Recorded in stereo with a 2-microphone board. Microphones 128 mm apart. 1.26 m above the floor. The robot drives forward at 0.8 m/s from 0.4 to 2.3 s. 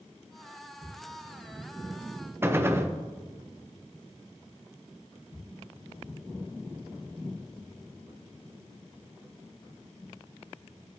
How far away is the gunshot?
About 0.8 m.